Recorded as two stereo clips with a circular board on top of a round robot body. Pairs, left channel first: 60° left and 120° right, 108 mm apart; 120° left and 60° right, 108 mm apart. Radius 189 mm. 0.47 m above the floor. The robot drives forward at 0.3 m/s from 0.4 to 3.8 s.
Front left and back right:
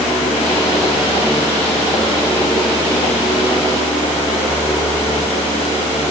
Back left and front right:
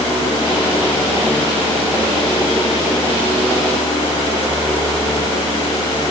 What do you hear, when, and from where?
Only background noise.